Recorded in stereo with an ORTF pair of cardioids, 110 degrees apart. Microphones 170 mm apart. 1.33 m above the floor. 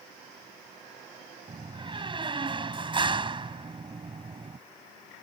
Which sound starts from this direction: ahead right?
A door slam, at 1.5 s.